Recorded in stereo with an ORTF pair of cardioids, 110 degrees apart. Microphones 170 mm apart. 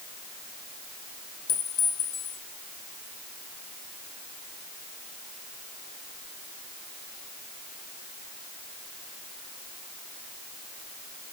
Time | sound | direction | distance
1.5 | a clink | 60° left | 5 m